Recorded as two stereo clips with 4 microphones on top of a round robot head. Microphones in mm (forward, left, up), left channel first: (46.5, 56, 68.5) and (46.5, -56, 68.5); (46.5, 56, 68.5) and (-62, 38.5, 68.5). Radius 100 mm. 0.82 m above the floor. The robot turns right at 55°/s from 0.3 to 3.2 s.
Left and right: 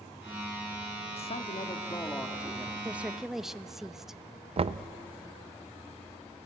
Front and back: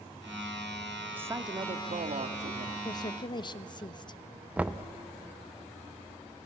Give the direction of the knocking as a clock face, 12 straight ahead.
3 o'clock.